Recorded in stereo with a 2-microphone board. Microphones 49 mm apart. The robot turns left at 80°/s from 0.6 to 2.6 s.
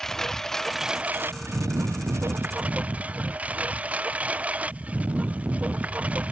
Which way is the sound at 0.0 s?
10° left.